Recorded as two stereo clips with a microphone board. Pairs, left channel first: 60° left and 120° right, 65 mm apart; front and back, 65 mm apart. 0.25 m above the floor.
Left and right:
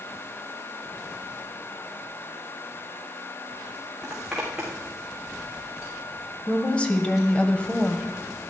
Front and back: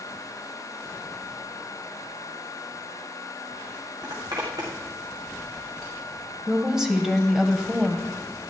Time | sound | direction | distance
4.0 | a zipper | 160° left | 3.5 m
6.5 | a woman speaking | 110° left | 1.2 m